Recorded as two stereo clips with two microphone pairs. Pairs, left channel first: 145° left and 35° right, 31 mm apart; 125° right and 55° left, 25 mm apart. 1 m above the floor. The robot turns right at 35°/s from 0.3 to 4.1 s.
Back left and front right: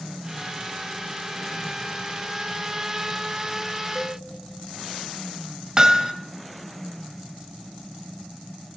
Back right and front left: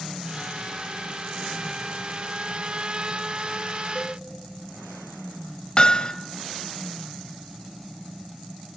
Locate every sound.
4.0 s a cowbell: 95° right, 2 m; by 4.2 s 90° right, 2 m
5.8 s hammering: 90° right, 1.0 m